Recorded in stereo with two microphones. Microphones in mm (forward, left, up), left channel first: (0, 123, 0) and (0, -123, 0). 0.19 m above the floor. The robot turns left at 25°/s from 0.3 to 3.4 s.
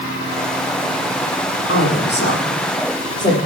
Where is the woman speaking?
55° left (ahead or behind), 7 m; by 3.4 s 15° left (ahead or behind), 7 m.